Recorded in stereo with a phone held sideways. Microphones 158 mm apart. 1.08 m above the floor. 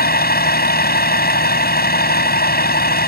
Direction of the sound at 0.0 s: 85° left.